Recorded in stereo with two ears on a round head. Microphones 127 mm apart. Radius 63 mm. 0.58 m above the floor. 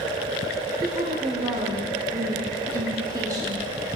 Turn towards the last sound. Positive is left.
turn(degrees=-25)  # may be behind; listen again after turning